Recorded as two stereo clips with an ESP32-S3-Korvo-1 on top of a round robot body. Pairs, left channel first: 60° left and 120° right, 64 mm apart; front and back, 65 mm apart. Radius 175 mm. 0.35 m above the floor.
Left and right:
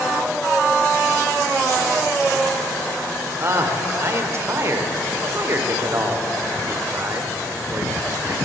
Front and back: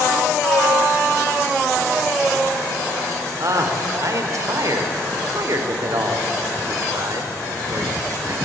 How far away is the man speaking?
About 1.7 m.